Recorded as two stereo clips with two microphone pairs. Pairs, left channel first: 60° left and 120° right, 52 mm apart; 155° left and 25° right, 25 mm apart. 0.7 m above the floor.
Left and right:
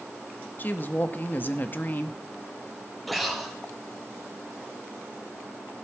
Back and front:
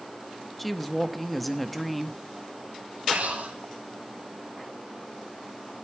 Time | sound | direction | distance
0.6 | a woman speaking | 65° left | 1.0 m
3.1 | breathing | 30° right | 3 m